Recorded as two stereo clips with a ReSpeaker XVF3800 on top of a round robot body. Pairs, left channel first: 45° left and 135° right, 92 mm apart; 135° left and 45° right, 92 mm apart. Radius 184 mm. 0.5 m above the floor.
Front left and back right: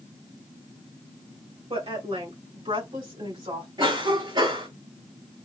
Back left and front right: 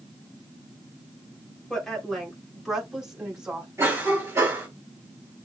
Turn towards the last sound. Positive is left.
turn(degrees=-105)